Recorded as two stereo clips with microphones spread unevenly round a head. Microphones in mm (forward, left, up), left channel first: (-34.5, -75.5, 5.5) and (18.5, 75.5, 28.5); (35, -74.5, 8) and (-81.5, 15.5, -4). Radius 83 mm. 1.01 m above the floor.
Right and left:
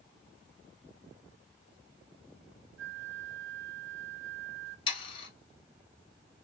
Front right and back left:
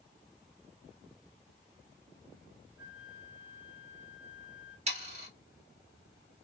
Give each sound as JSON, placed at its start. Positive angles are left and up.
{"t": 2.8, "sound": "a flute", "azimuth_deg": 60, "distance_m": 0.9}
{"t": 4.9, "sound": "sawing", "azimuth_deg": -170, "distance_m": 1.1}